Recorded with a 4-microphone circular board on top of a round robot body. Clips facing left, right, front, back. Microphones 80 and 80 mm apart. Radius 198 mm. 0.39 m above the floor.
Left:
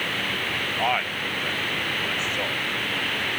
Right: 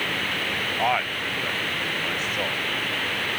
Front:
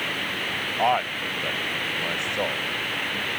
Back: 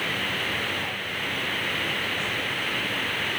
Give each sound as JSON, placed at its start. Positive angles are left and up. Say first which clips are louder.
{"t": 0.8, "sound": "a man speaking", "louder": "right 1 dB, front 9 dB", "azimuth_deg": -5}